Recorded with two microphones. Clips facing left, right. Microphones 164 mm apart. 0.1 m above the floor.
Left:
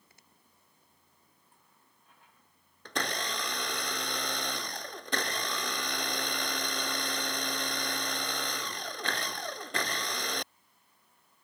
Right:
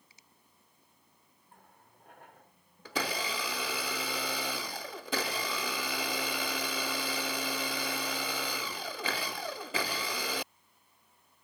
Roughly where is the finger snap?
Left.